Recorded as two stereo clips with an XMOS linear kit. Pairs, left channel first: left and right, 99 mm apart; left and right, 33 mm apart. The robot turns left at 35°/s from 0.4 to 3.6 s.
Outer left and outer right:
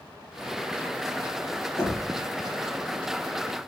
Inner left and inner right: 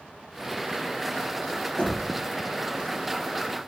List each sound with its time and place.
1.8 s knocking: 45° left (ahead or behind), 3 m; by 2.1 s 35° left (ahead or behind), 3 m